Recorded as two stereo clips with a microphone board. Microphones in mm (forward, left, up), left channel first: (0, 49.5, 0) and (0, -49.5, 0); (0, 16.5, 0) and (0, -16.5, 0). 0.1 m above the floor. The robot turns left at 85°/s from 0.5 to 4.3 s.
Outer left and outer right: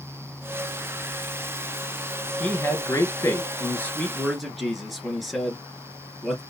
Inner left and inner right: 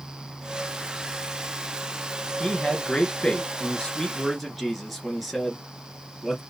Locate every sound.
2.4 s a man speaking: 160° left, 1.5 m; by 6.4 s straight ahead, 1.5 m